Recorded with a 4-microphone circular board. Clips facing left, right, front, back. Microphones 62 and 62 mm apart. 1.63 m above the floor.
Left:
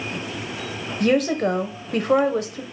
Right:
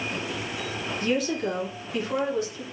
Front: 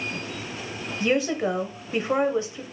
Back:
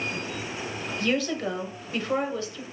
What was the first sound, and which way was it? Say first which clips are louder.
A woman speaking: left 7 dB, front 4 dB; 70° left.